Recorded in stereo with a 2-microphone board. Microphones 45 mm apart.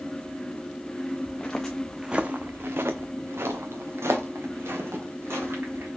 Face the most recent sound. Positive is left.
turn(degrees=-70)  # may be behind; listen again after turning